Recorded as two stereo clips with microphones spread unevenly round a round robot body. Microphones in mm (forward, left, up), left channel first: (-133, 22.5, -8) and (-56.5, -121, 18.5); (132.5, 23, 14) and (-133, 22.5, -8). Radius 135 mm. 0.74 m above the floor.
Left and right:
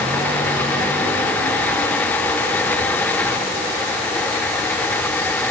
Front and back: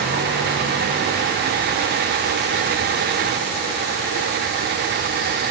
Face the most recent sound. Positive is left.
No sound to turn to.